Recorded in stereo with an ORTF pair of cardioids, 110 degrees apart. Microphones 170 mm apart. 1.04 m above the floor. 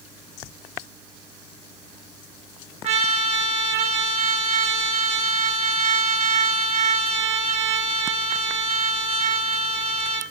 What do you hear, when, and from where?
2.8 s a trumpet: 45° right, 0.6 m